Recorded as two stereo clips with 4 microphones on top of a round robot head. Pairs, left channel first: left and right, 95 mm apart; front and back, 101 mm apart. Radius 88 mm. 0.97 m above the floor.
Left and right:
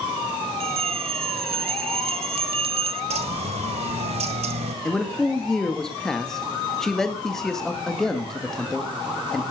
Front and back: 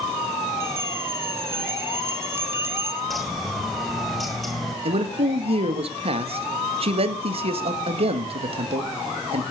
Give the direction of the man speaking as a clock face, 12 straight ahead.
6 o'clock.